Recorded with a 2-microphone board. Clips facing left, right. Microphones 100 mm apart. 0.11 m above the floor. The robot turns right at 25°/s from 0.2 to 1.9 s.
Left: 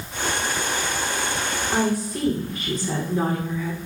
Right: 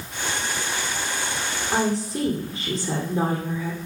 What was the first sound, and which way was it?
A woman speaking, 25° right (ahead or behind).